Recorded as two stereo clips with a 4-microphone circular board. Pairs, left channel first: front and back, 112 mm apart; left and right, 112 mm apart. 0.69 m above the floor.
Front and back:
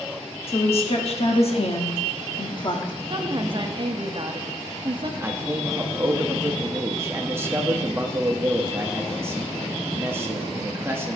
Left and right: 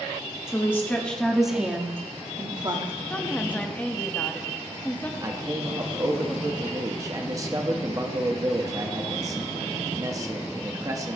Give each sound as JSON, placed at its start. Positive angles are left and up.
{"t": 0.5, "sound": "a woman speaking", "azimuth_deg": 25, "distance_m": 1.3}
{"t": 3.1, "sound": "a woman speaking", "azimuth_deg": 160, "distance_m": 0.9}
{"t": 5.2, "sound": "a man speaking", "azimuth_deg": -125, "distance_m": 1.1}